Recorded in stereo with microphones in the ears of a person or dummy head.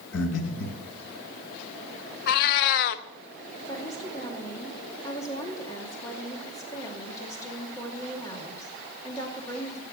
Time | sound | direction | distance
0.1 | breathing | 75° left (ahead or behind) | 2 m
2.3 | a cat meowing | 50° left (ahead or behind) | 0.6 m
3.7 | a woman speaking | 10° left (ahead or behind) | 2.5 m